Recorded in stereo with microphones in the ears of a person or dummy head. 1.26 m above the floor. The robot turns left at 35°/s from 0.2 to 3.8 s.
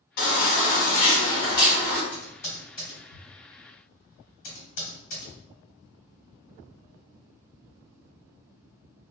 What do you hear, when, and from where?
0.2 s a baby crying: 70° left, 1.1 m; by 2.0 s 5° left, 1.1 m
2.1 s typing on a keyboard: 5° left (ahead or behind), 1.2 m; by 5.3 s 50° left (ahead or behind), 1.2 m